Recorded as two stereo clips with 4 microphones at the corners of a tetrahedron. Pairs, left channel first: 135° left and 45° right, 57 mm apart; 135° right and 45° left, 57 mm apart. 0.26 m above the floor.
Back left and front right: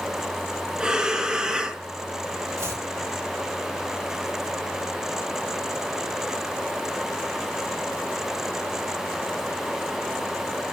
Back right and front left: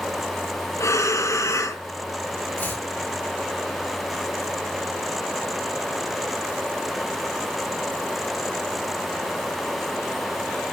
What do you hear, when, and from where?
0.8 s breathing: 120° right, 2.5 m
2.6 s chopping: 75° right, 5.5 m